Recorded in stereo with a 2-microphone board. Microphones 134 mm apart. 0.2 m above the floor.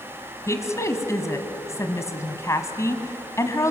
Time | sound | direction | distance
0.5 | a woman speaking | 20° left (ahead or behind) | 1.6 m